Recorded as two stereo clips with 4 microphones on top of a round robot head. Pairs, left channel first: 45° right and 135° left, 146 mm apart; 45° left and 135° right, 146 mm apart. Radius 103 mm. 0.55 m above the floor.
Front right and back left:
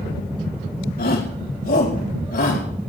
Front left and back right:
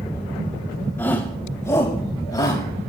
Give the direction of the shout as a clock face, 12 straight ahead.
1 o'clock.